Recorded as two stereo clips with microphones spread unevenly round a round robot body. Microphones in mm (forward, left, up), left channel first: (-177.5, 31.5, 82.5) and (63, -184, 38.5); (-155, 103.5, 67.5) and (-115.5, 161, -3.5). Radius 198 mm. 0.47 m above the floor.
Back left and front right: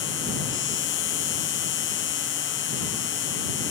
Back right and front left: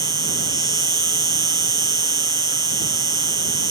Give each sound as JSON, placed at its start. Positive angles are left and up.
{"t": 0.0, "sound": "an insect", "azimuth_deg": 75}